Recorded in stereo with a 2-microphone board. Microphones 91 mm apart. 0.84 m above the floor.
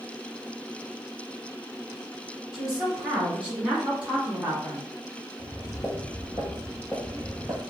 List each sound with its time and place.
2.5 s a woman speaking: 5° right (ahead or behind), 2.0 m; by 4.9 s 30° right (ahead or behind), 0.8 m
5.4 s footsteps: 40° left (ahead or behind), 1.0 m; by 7.6 s 10° right (ahead or behind), 1.0 m